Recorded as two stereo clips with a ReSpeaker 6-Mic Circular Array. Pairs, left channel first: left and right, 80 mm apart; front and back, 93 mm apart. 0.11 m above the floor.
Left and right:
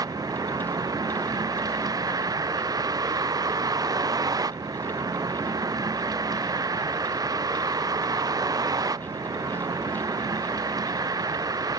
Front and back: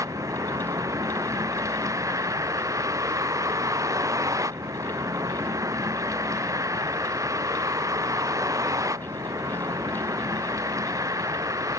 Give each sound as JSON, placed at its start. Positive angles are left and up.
{"t": 0.0, "sound": "a vehicle", "azimuth_deg": -125}